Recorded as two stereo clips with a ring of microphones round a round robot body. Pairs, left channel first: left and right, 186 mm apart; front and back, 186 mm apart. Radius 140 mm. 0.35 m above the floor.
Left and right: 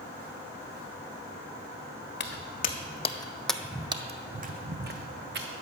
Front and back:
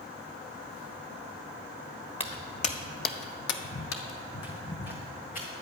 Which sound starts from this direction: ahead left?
Footsteps, at 2.2 s.